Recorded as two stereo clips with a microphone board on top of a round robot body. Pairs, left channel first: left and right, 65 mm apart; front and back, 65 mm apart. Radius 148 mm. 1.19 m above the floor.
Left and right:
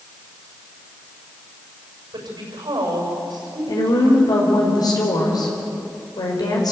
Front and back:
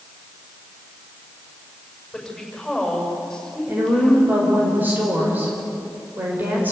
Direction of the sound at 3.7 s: 115° left.